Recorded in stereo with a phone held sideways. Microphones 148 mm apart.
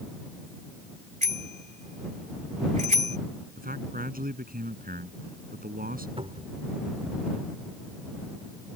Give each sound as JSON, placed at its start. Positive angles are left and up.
{"t": 1.2, "sound": "a bicycle bell", "side_deg": -55}
{"t": 3.6, "sound": "a man speaking", "side_deg": -80}
{"t": 6.2, "sound": "a cupboard door", "side_deg": -40}